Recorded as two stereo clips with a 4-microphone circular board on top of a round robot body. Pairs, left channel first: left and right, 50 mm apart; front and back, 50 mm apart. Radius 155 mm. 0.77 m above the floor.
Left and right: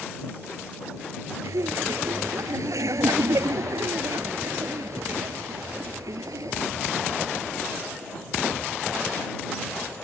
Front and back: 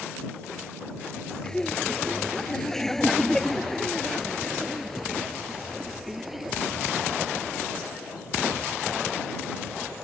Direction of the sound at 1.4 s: 80° right.